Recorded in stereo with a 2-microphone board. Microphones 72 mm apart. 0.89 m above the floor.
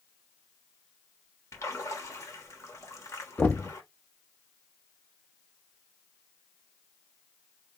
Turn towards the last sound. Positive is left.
turn(degrees=20)  # may be behind; listen again after turning